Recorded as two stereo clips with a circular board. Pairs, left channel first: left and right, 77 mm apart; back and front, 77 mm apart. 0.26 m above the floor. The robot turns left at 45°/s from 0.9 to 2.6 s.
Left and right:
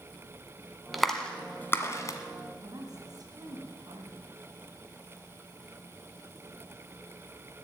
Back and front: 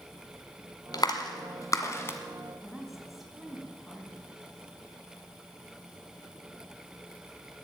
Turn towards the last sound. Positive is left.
turn(degrees=-90)